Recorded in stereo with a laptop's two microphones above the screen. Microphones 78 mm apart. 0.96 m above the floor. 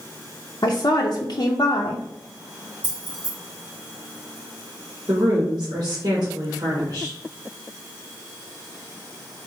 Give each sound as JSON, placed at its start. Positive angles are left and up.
{"t": 0.6, "sound": "a woman speaking", "side_deg": 55, "distance_m": 0.5}
{"t": 2.8, "sound": "keys jangling", "side_deg": -20, "distance_m": 2.0}
{"t": 5.1, "sound": "a woman speaking", "side_deg": -60, "distance_m": 1.5}